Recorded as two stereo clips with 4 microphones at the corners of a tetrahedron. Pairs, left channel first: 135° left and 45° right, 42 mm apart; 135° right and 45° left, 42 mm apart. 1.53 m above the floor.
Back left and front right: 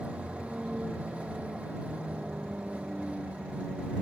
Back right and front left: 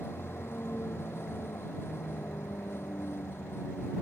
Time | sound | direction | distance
0.0 | a vehicle | 110° right | ?